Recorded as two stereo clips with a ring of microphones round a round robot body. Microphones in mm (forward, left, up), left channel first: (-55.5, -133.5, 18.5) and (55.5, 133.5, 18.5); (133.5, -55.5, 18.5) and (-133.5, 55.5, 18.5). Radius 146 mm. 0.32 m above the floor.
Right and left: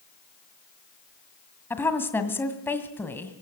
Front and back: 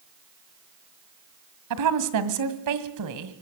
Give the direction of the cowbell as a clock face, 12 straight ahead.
No cowbell in this recording.